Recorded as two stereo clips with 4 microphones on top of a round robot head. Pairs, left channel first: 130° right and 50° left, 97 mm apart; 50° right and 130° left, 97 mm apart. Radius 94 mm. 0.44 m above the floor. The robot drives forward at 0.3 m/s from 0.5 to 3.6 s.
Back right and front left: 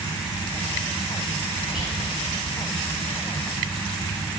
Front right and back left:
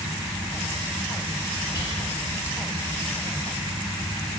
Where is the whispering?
35° right, 1.2 m.